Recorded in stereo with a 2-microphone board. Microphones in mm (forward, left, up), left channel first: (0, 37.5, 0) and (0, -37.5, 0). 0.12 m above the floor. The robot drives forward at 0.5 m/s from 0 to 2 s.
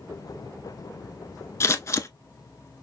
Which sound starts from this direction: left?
Scissors, at 1.6 s.